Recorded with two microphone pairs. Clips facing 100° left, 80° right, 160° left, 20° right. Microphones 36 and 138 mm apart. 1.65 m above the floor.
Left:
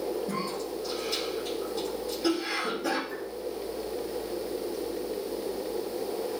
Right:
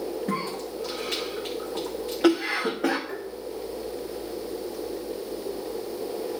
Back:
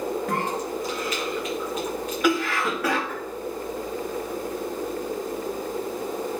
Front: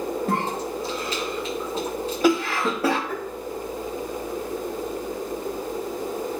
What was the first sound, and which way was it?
A cough, 75° right.